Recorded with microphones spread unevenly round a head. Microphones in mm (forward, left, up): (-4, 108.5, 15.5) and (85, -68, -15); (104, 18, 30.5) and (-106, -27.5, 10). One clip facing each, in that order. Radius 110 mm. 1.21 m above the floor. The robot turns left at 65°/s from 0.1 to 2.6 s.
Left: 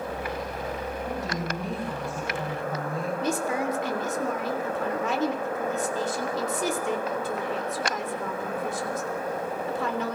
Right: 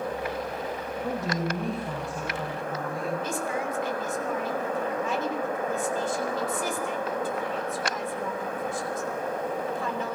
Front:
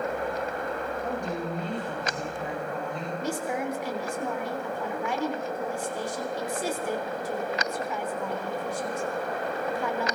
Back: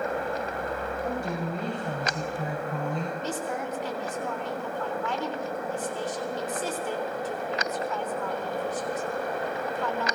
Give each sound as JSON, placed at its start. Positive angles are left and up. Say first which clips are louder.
{"t": 1.0, "sound": "a woman speaking", "louder": "right 5 dB, back 1 dB", "azimuth_deg": -75, "distance_m": 6.5}
{"t": 3.2, "sound": "a woman speaking", "louder": "left 3 dB, front 2 dB", "azimuth_deg": 90, "distance_m": 3.0}